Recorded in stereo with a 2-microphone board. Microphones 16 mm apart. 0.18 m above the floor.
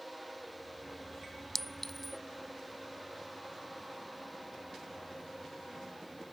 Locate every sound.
1.6 s a clink: 20° left (ahead or behind)